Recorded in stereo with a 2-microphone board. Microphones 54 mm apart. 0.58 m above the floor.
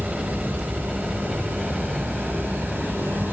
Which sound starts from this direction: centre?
A helicopter, at 0.0 s.